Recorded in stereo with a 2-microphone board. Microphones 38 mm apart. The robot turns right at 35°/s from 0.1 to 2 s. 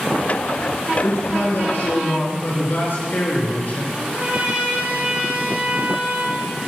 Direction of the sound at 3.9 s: 40° right (ahead or behind).